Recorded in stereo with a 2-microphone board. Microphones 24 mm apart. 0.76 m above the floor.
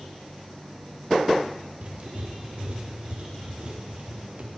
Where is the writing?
50° right (ahead or behind), 1.0 m.